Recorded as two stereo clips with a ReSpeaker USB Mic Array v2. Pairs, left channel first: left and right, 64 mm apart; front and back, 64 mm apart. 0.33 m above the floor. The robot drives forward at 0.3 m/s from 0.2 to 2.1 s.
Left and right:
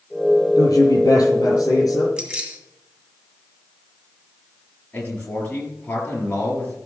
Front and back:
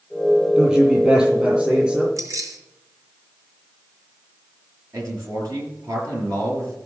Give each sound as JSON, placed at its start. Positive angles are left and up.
{"t": 0.6, "sound": "a man speaking", "azimuth_deg": 105, "distance_m": 6.0}
{"t": 2.2, "sound": "keys jangling", "azimuth_deg": -165, "distance_m": 1.9}
{"t": 4.9, "sound": "a man speaking", "azimuth_deg": 155, "distance_m": 6.5}